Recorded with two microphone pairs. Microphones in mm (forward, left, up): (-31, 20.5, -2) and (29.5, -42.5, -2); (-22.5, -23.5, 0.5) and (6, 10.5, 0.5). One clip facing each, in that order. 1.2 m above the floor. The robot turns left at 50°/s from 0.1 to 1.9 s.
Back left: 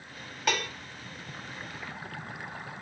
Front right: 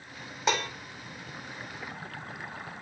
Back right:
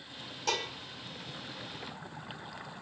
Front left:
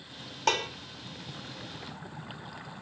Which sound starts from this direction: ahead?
Dishes clattering, at 0.5 s.